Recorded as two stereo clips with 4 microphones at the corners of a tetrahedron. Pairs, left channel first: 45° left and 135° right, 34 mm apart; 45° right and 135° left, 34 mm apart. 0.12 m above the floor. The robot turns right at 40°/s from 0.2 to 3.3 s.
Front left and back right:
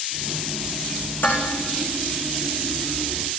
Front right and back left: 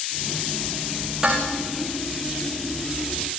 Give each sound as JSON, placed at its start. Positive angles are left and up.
{"t": 1.2, "sound": "dishes clattering", "azimuth_deg": 65, "distance_m": 6.0}